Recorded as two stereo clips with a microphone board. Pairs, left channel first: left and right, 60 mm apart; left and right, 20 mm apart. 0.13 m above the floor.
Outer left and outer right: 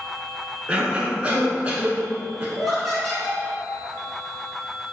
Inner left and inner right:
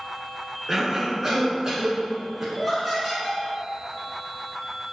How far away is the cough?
About 1.1 m.